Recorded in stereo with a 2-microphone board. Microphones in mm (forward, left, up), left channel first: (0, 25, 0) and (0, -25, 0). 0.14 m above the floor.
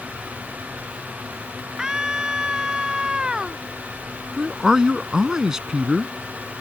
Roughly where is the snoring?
I don't hear snoring.